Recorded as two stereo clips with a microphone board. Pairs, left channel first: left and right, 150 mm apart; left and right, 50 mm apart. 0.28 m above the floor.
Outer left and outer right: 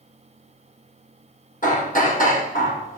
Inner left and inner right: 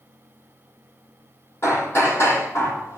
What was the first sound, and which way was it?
Hammering, 60° left (ahead or behind).